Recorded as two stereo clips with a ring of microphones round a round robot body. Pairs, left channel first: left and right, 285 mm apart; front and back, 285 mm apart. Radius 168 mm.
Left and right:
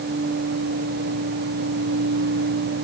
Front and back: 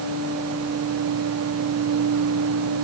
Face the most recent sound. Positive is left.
No sound to turn to.